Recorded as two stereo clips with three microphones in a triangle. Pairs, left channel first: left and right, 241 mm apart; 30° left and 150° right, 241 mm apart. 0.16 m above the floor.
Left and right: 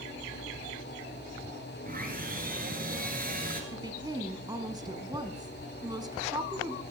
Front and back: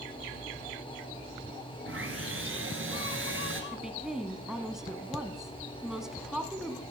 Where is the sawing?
135° right, 1.6 m.